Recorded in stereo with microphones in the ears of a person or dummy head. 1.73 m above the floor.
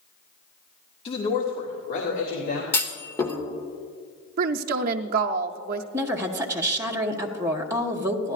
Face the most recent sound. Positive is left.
turn(degrees=-15)  # may be behind; listen again after turning